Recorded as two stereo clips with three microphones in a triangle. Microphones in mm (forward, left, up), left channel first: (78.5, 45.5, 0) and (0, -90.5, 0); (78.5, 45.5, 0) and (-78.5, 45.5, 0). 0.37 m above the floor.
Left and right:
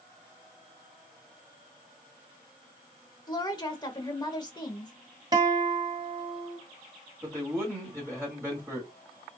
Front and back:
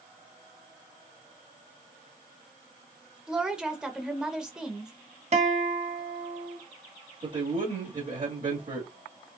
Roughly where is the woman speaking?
Left.